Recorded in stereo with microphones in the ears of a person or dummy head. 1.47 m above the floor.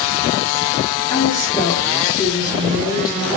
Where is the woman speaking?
20° left (ahead or behind), 4.5 m.